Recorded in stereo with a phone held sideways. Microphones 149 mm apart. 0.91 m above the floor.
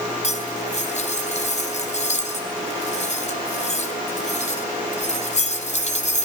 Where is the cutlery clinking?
50° left (ahead or behind), 3 m.